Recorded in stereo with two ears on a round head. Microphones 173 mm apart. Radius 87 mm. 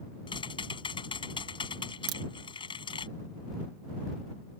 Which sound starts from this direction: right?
A crack, at 2.1 s.